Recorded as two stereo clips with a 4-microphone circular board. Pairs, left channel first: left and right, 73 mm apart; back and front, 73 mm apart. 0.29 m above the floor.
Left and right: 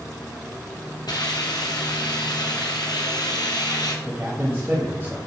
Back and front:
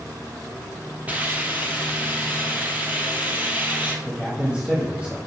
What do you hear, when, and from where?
1.1 s a hiss: 70° left, 1.3 m
4.0 s a man speaking: 60° right, 1.4 m